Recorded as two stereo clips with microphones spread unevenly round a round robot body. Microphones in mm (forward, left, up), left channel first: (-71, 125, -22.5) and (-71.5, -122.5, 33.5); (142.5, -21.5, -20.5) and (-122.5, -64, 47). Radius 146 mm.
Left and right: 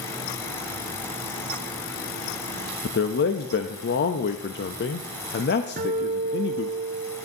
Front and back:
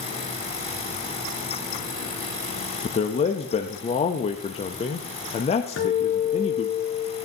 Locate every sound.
2.8 s a man speaking: 65° left, 0.5 m
5.8 s a guitar: 35° right, 2.5 m